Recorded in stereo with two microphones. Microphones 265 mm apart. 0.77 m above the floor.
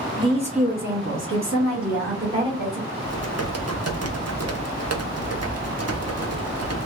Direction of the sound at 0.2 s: 15° right (ahead or behind).